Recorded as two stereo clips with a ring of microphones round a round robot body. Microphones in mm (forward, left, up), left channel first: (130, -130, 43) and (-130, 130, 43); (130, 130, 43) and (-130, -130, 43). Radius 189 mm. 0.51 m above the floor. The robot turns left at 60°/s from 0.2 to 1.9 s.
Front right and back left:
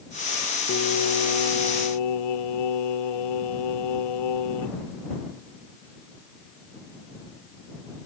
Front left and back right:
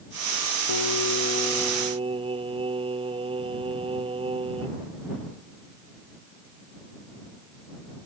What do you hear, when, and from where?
0.7 s singing: 15° left; by 4.8 s 60° right